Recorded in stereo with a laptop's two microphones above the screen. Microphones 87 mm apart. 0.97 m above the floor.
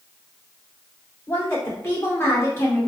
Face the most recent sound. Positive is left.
turn(degrees=30)  # may be behind; listen again after turning